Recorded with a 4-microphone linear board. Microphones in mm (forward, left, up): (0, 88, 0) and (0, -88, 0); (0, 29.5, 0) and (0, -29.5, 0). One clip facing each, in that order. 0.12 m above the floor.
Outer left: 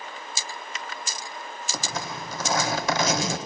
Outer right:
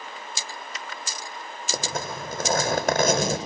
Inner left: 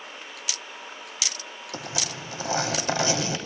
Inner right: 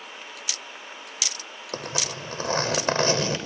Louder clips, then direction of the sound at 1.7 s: Outer right 3 dB, inner right 2 dB; 55° right (ahead or behind).